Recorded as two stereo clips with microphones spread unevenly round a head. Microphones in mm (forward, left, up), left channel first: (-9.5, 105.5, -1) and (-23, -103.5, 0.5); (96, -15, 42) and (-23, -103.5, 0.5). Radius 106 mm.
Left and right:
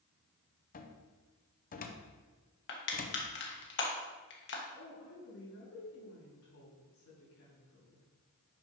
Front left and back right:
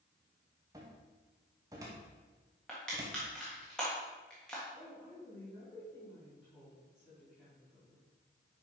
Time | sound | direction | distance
0.7 | a cupboard door | 140° left | 0.8 m
2.7 | crushing | 115° left | 1.4 m
4.7 | a woman speaking | 120° left | 3 m